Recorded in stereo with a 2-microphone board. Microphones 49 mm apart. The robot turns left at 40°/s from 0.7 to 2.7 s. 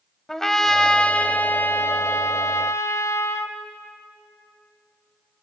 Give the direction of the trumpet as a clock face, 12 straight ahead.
6 o'clock.